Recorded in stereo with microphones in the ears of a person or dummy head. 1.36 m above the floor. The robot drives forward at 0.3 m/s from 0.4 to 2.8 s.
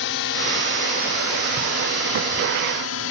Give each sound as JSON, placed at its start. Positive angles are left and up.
{"t": 0.0, "sound": "a drone", "side_deg": 60}